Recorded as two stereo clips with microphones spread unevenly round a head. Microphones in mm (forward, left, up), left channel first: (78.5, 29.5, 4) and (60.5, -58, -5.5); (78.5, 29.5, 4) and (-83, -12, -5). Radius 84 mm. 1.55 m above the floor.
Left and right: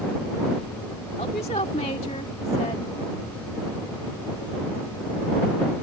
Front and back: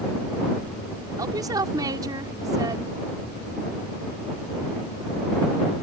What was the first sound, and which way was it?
A woman speaking, 125° left.